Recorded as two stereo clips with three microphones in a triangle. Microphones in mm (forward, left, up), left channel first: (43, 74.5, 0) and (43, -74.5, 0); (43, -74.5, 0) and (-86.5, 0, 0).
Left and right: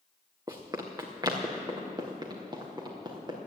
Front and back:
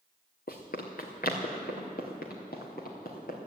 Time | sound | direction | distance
0.5 | running footsteps | 25° right | 1.8 m